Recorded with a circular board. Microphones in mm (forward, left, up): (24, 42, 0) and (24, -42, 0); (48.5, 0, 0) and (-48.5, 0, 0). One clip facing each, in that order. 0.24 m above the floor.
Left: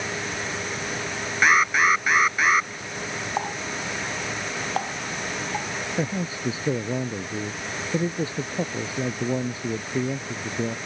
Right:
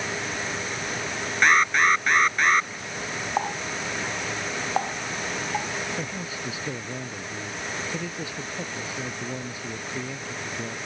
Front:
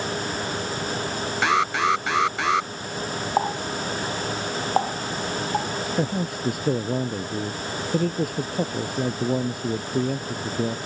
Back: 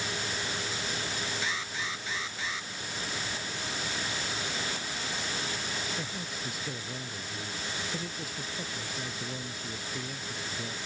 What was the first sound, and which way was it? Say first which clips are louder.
An alarm: even, front 15 dB; 5° left.